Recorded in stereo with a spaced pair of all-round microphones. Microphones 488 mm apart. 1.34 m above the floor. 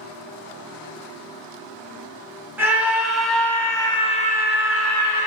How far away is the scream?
About 1.6 m.